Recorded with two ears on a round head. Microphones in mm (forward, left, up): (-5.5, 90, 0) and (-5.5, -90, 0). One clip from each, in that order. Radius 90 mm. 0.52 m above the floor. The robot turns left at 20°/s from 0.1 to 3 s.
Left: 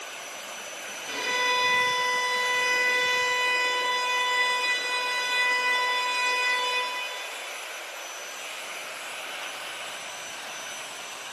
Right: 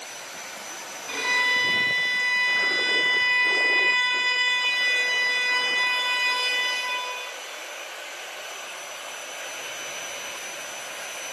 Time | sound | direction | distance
1.1 | a violin | straight behind | 6 m